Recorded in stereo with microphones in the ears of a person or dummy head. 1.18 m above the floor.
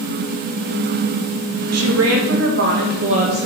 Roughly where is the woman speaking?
Right.